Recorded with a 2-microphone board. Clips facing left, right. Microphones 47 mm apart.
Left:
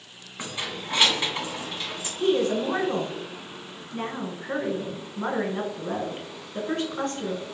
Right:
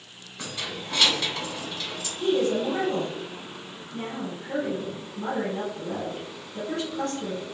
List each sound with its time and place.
0.4 s keys jangling: 25° left (ahead or behind), 0.8 m
2.2 s a woman speaking: 40° left (ahead or behind), 1.0 m